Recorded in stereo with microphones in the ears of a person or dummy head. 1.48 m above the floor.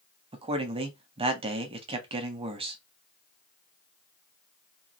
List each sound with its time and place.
0.3 s a man speaking: 30° right (ahead or behind), 0.7 m